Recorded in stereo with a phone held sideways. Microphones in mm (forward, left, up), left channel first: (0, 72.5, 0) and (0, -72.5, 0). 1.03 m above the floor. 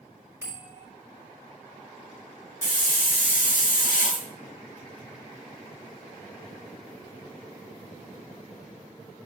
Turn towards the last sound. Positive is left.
turn(degrees=80)